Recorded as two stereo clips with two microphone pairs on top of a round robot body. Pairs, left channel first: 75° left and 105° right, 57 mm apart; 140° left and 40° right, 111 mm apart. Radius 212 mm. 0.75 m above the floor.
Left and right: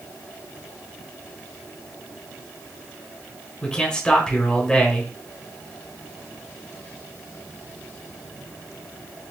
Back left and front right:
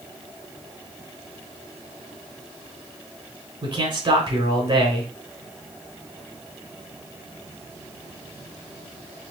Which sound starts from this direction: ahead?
A man speaking, at 3.6 s.